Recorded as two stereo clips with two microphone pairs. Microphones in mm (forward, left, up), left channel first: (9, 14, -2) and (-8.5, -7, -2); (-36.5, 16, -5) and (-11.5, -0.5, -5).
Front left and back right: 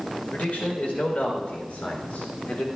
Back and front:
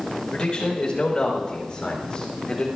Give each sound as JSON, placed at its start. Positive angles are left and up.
{"t": 0.3, "sound": "a man speaking", "azimuth_deg": 90, "distance_m": 4.0}